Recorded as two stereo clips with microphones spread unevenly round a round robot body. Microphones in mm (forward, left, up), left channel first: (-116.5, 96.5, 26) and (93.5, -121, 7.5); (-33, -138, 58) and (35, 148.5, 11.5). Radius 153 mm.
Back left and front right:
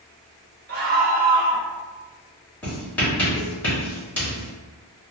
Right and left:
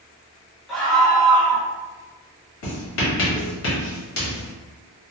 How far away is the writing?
About 1.7 m.